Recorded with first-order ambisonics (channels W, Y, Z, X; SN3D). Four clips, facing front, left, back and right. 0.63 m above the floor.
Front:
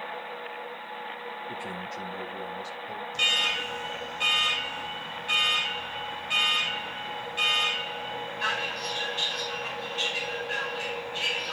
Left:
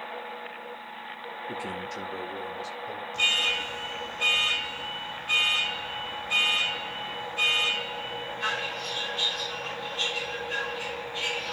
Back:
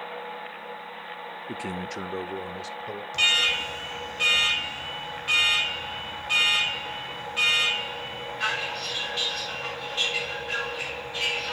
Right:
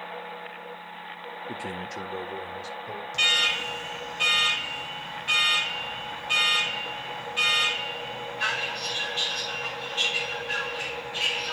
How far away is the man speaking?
About 0.9 m.